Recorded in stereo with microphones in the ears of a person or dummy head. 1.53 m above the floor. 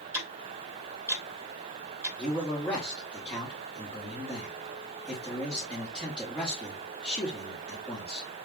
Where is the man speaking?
5° left (ahead or behind), 2 m.